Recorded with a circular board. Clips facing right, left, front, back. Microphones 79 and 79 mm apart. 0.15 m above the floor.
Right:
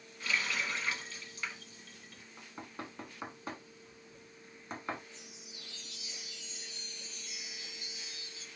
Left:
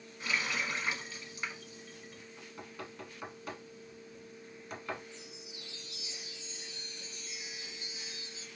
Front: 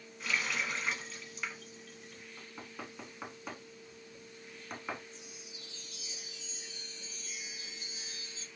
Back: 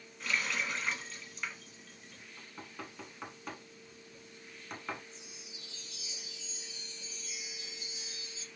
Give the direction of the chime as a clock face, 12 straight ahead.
11 o'clock.